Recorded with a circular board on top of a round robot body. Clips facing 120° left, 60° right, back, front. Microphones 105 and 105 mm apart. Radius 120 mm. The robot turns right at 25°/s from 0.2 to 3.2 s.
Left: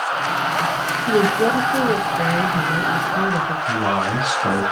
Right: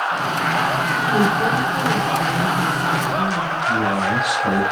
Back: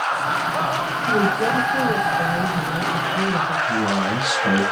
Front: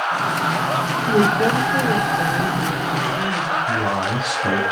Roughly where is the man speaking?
Ahead left.